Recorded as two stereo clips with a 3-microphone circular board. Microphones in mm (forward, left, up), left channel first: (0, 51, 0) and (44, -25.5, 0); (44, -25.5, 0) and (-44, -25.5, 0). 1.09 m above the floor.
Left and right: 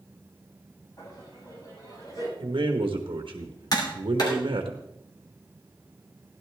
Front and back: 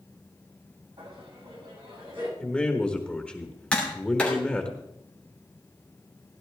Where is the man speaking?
80° right, 1.2 m.